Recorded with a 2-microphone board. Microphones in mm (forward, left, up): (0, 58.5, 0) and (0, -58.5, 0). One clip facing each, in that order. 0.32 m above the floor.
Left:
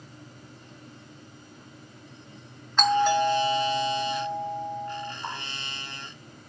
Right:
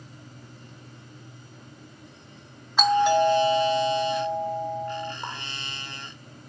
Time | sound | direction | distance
2.8 | a doorbell | 10° right (ahead or behind) | 2.5 m
5.2 | a running tap | 65° right (ahead or behind) | 3 m